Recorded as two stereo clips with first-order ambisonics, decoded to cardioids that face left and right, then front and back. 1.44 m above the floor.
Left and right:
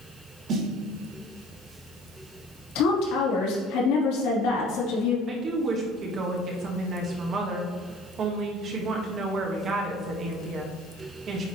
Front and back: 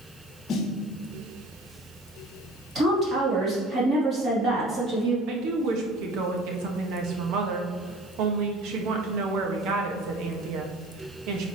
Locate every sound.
0.5 s a snare drum: 45° right, 1.2 m
2.8 s a woman speaking: 110° left, 3 m
5.3 s a woman speaking: 150° right, 1.3 m